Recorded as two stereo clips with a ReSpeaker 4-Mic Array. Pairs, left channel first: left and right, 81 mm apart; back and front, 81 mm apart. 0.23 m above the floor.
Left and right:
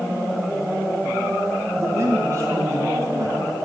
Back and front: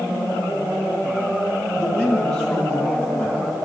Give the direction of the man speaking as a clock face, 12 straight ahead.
4 o'clock.